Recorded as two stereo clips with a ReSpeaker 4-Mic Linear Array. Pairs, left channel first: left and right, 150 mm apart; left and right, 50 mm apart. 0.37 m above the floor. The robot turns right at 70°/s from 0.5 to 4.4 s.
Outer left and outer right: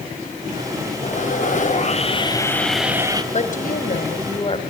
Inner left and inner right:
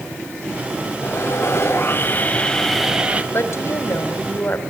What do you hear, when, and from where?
1.0 s sawing: 60° left, 2 m; by 3.2 s 145° right, 2 m
3.3 s a woman speaking: 60° left, 2 m; by 4.6 s 135° left, 2 m